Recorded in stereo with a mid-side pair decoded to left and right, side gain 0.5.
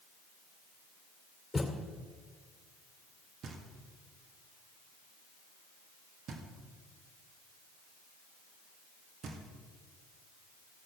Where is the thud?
10° left, 2.5 m.